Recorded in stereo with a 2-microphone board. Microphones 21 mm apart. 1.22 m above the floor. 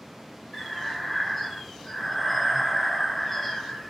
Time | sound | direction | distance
0.5 | breathing | 15° left (ahead or behind) | 0.7 m